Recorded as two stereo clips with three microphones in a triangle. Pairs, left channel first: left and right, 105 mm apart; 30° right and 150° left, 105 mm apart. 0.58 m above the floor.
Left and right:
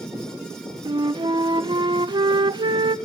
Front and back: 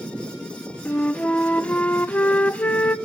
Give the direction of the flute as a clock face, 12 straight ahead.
3 o'clock.